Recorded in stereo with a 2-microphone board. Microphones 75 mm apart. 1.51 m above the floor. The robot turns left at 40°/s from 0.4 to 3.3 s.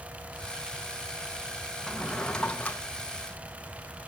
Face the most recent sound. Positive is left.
turn(degrees=120)